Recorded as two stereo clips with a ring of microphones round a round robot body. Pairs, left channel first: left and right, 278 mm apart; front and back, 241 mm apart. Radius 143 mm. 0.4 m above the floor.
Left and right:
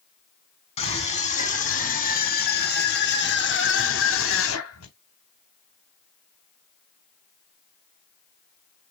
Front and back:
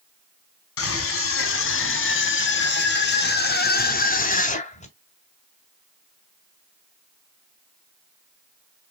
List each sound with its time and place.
0.8 s a scream: 25° left, 4.5 m; by 4.9 s 60° left, 3.5 m